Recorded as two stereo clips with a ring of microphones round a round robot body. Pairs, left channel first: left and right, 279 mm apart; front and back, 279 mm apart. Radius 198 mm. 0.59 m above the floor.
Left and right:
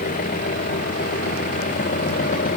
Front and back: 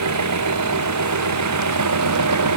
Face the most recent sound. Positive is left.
turn(degrees=160)